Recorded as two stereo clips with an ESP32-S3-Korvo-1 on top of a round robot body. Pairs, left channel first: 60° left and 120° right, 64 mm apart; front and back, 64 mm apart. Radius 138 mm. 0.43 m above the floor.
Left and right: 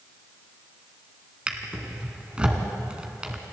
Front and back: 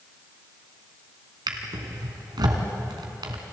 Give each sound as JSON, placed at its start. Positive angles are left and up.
{"t": 1.5, "sound": "a drawer", "azimuth_deg": 165, "distance_m": 2.0}